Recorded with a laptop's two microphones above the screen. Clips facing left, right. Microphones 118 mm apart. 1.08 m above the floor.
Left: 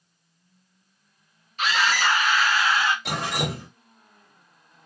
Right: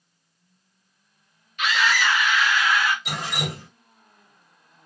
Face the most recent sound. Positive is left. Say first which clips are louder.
# left 3 dB
turn(degrees=65)  # may be behind; listen again after turning